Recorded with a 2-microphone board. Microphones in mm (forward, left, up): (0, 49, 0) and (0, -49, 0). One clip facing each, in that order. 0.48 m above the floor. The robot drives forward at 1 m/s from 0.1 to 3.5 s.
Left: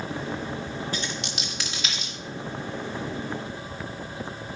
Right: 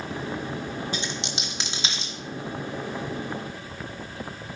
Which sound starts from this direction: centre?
A dropped coin, at 0.9 s.